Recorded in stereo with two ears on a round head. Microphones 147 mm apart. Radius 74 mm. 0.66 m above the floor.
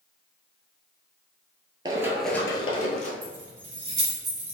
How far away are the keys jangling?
About 1.3 m.